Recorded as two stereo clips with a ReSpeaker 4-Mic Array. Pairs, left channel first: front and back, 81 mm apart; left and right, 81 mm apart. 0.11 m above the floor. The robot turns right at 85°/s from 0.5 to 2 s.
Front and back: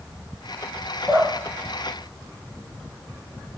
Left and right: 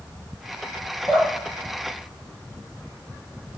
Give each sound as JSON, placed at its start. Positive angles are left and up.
{"t": 1.1, "sound": "dripping", "azimuth_deg": -140, "distance_m": 1.4}